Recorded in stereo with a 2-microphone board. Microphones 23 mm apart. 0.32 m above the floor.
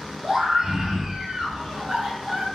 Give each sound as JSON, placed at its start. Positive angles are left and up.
{"t": 0.2, "sound": "a scream", "side_deg": -25, "distance_m": 0.9}